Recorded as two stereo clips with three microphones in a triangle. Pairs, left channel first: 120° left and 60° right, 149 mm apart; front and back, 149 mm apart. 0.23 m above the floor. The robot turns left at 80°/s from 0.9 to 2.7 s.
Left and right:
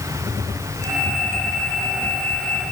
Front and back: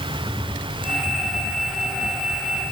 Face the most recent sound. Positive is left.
No sound to turn to.